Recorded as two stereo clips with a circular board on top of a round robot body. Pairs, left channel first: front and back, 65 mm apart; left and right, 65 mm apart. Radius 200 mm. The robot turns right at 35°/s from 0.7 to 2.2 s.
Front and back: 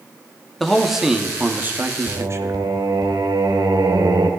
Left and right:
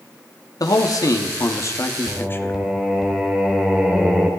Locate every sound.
0.6 s a man speaking: 90° left, 1.8 m; by 2.6 s 140° left, 1.8 m
2.1 s singing: 175° right, 2.5 m; by 4.3 s 170° right, 2.5 m